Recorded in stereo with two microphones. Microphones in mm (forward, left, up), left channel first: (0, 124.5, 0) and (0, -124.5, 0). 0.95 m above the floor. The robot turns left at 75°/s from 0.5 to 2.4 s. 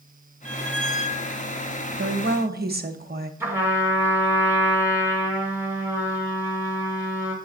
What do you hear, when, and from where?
0.5 s a squeak: 110° left, 1.9 m; by 1.3 s 50° left, 1.9 m
2.0 s a woman speaking: 105° right, 0.8 m; by 3.3 s 135° right, 0.8 m
3.4 s a trumpet: 10° right (ahead or behind), 2 m